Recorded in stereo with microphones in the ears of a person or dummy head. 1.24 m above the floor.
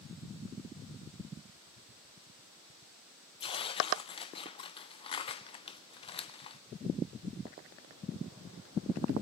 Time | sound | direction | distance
3.4 | tearing paper | 35° left (ahead or behind) | 0.5 m